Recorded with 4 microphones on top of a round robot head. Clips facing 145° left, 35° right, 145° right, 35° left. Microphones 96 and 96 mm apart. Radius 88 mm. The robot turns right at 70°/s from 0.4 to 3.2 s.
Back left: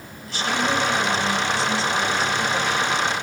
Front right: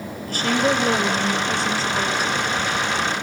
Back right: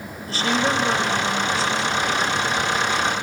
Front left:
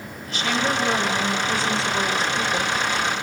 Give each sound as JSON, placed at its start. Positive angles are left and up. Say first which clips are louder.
{"t": 0.3, "sound": "a woman speaking", "louder": "front right 3 dB, back right 2 dB", "azimuth_deg": -85, "distance_m": 6.0}